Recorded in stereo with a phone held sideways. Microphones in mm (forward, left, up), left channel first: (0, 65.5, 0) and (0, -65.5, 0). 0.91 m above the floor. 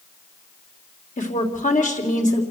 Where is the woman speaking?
80° left, 3 m.